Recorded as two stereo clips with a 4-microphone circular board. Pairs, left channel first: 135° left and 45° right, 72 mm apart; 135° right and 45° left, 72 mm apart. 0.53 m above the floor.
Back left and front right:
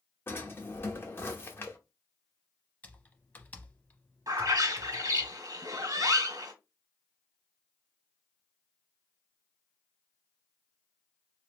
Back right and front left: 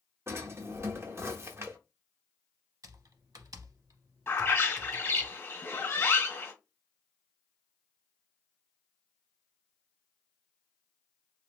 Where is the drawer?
85° left, 0.7 m.